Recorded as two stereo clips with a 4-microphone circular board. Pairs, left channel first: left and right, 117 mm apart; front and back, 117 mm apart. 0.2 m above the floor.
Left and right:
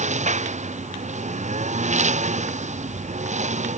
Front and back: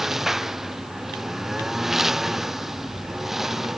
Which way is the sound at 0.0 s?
95° right.